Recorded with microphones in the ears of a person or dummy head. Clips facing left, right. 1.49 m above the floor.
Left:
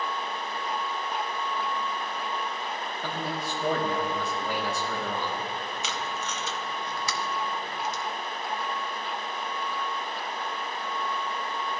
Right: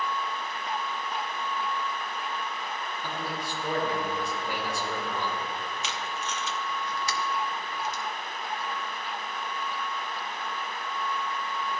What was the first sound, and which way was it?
A man speaking, 50° left (ahead or behind).